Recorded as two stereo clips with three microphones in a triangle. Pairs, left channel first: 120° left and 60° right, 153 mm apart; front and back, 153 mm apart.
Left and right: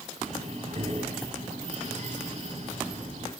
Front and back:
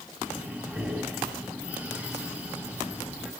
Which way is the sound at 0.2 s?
100° right.